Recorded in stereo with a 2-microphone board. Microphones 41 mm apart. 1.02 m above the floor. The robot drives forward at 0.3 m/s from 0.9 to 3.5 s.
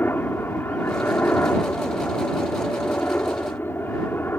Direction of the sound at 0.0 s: 55° left (ahead or behind).